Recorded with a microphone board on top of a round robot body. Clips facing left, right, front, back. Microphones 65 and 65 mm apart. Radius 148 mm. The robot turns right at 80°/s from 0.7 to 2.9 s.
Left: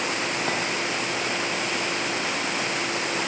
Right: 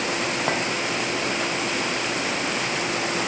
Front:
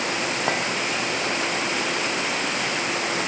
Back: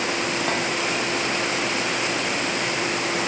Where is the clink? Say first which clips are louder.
Right 4 dB, front 2 dB; 45° right, 0.5 m.